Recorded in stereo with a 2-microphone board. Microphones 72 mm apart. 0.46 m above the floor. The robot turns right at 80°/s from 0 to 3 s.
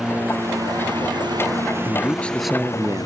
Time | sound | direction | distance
0.0 | a lawn mower | 5° right (ahead or behind) | ?
1.9 | a man speaking | 135° left | ?